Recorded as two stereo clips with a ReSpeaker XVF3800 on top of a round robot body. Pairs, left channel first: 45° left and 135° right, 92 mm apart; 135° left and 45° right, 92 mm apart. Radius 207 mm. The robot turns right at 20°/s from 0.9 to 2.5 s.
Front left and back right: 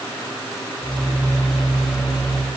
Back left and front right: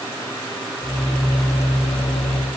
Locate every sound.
Only background noise.